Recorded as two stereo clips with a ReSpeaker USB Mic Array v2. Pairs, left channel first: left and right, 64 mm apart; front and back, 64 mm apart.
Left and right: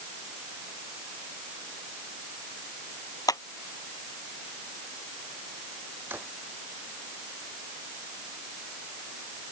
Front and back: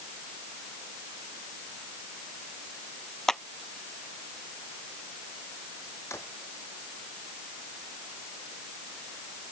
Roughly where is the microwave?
I don't hear a microwave.